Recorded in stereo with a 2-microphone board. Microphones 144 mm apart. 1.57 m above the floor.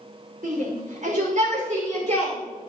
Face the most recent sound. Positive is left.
turn(degrees=-55)  # may be behind; listen again after turning